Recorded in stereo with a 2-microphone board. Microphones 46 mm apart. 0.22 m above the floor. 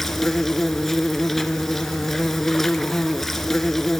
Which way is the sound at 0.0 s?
5° left (ahead or behind).